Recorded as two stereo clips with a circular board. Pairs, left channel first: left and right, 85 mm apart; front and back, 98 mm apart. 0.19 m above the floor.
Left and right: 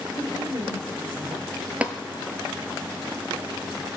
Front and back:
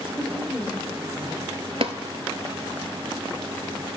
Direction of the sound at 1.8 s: 165° right.